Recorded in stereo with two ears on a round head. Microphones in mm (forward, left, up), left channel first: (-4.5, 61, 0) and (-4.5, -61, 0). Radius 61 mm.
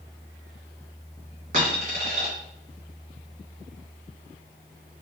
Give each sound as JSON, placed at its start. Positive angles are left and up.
{"t": 1.5, "sound": "a dropped coin", "side_deg": -60, "distance_m": 2.0}